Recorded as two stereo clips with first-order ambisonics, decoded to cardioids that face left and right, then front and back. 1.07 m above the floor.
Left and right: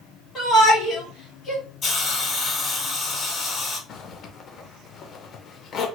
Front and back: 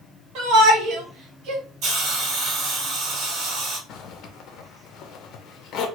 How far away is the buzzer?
I don't hear a buzzer.